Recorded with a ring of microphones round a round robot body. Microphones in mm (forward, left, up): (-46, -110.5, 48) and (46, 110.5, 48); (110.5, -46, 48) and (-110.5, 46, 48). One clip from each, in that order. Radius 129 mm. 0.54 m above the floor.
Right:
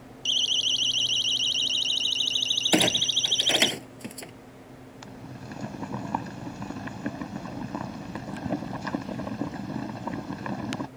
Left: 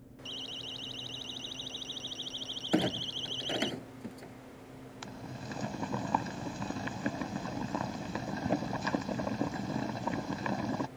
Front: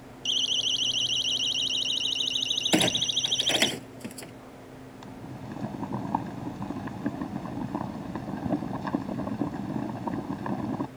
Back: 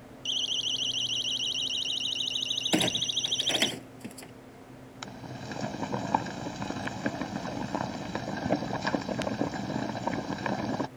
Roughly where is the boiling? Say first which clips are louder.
Even, back 4 dB; behind left.